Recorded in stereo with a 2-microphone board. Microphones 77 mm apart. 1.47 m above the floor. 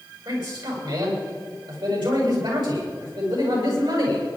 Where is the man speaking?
75° right (ahead or behind), 7.5 m.